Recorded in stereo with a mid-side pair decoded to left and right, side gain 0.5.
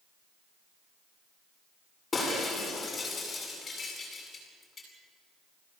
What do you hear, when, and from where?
2.1 s breaking glass: 30° left, 9 m